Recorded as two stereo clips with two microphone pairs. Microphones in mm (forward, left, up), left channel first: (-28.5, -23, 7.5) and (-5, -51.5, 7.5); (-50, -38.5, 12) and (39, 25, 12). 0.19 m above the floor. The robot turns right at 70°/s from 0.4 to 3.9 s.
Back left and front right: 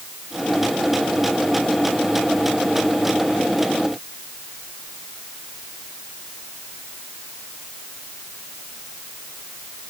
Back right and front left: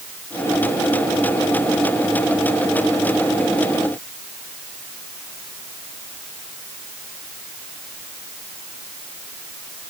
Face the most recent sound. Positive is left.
No sound to turn to.